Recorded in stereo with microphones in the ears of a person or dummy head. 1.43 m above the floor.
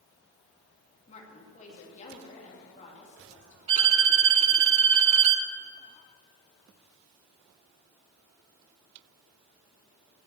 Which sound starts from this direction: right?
A violin, at 3.7 s.